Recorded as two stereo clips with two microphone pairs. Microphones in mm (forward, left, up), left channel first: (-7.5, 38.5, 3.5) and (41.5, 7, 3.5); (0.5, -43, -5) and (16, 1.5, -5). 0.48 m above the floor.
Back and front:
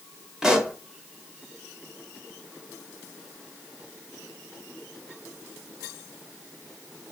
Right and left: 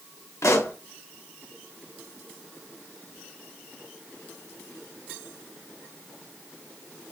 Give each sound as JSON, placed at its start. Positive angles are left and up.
{"t": 0.4, "sound": "a pop", "azimuth_deg": -110, "distance_m": 0.5}